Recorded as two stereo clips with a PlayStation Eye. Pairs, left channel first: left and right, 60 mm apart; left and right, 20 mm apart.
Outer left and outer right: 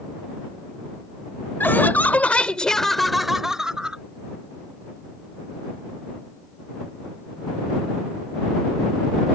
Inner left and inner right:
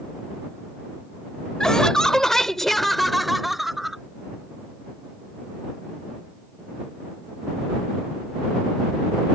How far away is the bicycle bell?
I don't hear a bicycle bell.